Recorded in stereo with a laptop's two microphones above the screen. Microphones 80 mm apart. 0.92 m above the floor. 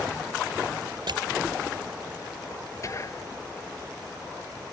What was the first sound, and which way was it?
Crushing, 80° right.